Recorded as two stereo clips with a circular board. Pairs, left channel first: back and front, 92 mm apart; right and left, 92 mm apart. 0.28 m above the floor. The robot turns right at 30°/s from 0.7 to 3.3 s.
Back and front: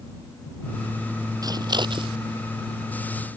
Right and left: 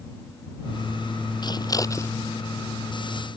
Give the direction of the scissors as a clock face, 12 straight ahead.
2 o'clock.